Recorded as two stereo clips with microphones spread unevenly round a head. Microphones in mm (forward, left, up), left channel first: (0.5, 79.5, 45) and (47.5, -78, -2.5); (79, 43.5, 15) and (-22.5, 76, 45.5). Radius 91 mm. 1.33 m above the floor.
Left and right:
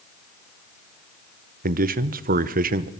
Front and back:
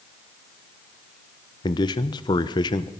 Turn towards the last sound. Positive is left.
turn(degrees=-60)